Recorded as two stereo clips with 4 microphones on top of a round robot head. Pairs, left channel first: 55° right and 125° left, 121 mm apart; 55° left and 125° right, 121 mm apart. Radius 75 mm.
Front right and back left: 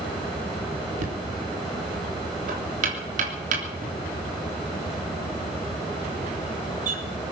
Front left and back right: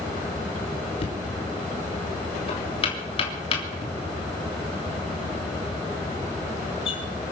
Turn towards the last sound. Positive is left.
turn(degrees=105)